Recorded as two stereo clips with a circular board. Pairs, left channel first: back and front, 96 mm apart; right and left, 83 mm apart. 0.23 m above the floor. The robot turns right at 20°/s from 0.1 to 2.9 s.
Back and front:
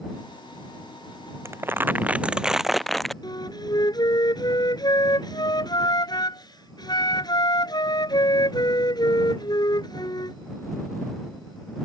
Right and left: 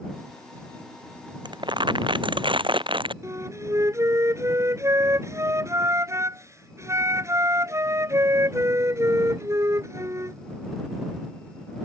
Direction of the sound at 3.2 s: 140° left.